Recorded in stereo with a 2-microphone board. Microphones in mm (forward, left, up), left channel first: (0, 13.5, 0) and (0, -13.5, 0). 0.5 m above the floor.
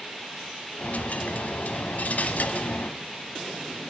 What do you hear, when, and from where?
0.8 s a dropped coin: 70° left (ahead or behind), 0.8 m